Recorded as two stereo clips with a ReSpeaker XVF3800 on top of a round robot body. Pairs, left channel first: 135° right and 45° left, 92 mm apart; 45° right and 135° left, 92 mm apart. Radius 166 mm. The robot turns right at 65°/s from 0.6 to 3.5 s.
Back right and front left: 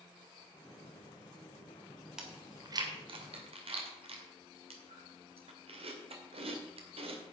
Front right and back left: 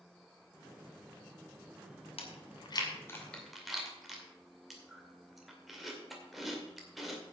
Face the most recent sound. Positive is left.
turn(degrees=45)